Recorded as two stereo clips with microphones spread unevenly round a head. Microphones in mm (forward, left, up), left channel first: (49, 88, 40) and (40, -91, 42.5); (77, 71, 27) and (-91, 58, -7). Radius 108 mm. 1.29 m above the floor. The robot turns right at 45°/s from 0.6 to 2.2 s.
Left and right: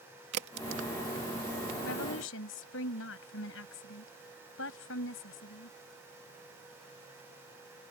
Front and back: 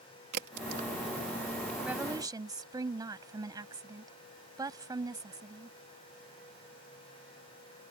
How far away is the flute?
No flute in this recording.